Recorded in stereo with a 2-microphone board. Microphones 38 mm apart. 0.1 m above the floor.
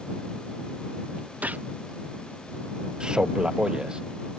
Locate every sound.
1.4 s a gunshot: 45° right (ahead or behind)
3.0 s a man speaking: 20° right (ahead or behind)